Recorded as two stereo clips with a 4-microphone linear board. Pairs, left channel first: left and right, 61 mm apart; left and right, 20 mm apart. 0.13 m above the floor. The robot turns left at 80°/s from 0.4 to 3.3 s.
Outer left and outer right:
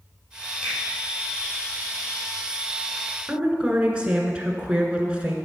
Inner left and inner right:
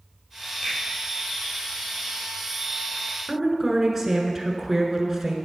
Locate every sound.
0.6 s a finger snap: 30° left (ahead or behind), 4.5 m; by 0.8 s 20° left (ahead or behind), 4.5 m
3.3 s a woman speaking: 20° right (ahead or behind), 1.3 m